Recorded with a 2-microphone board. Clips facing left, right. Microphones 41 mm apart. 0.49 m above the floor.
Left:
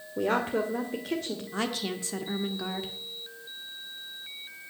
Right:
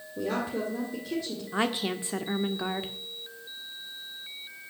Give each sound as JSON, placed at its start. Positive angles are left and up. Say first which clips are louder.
{"t": 0.2, "sound": "a woman speaking", "louder": "left 4 dB", "side_deg": 50, "distance_m": 1.8}
{"t": 1.5, "sound": "a woman speaking", "louder": "right 4 dB", "side_deg": -25, "distance_m": 0.9}